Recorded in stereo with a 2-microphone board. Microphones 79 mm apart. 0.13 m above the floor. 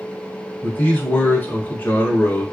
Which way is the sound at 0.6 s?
25° left (ahead or behind).